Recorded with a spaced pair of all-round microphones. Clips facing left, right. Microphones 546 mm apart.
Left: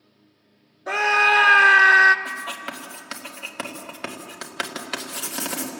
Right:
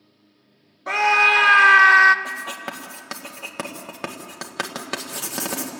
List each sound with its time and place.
0.9 s a scream: 30° right (ahead or behind), 0.6 m
2.2 s writing: 65° right (ahead or behind), 1.9 m